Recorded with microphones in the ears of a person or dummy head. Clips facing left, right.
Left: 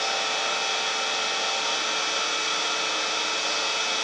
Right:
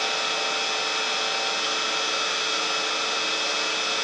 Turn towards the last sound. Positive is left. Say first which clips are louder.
# even
turn(degrees=-45)  # may be behind; listen again after turning